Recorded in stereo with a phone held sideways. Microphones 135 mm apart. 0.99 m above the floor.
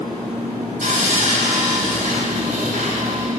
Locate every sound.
0.8 s sawing: 75° right (ahead or behind), 3 m